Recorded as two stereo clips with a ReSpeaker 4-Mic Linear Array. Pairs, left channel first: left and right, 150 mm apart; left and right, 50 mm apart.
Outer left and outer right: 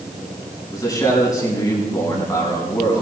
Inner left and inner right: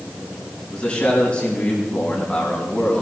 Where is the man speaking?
25° left (ahead or behind), 5 m.